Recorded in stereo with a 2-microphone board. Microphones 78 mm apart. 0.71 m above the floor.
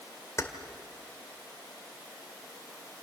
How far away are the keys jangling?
About 2 m.